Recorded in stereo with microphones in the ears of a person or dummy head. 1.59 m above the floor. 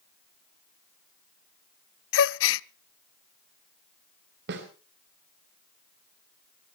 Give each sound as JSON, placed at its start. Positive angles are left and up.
{"t": 2.1, "sound": "a gasp", "side_deg": 75, "distance_m": 0.6}
{"t": 4.5, "sound": "a snare drum", "side_deg": -70, "distance_m": 3.0}